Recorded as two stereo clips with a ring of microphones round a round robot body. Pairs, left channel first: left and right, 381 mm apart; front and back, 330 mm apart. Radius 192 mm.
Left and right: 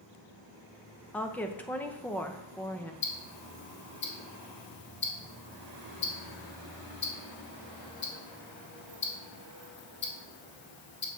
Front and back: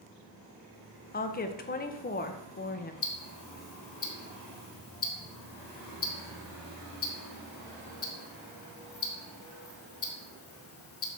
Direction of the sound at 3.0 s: 35° left.